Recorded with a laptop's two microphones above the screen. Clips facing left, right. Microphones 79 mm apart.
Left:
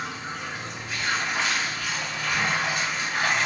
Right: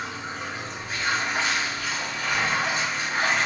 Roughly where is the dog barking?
No dog barking in this recording.